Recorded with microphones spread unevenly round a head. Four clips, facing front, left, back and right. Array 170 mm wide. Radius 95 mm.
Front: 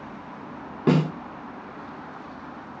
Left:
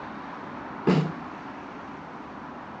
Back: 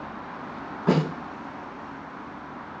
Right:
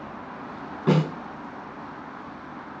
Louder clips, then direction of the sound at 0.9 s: Right 1 dB, front 2 dB; straight ahead.